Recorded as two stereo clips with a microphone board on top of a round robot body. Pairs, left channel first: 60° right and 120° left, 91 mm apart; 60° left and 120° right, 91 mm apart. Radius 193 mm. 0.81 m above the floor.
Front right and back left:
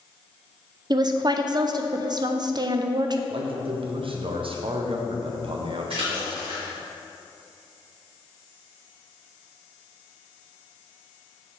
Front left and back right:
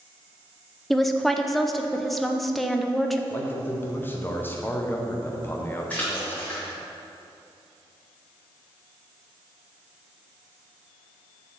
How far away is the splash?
About 0.9 m.